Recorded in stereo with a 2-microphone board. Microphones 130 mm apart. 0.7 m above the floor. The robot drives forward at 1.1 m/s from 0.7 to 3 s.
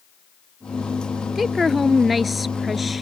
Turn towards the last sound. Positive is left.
turn(degrees=0)  # may be behind; listen again after turning